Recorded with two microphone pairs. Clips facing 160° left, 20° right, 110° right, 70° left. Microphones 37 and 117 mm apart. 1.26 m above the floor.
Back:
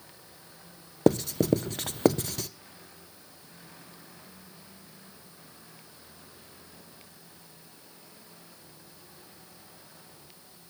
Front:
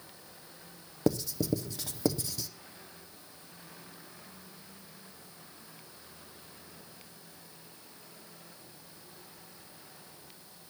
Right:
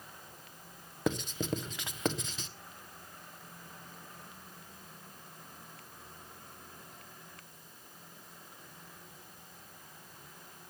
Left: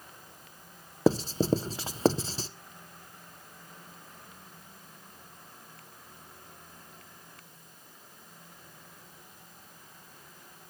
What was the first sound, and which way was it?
Writing, 125° left.